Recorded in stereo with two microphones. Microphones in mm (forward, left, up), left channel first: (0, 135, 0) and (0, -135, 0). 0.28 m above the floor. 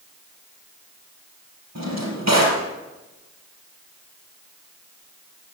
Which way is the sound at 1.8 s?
80° right.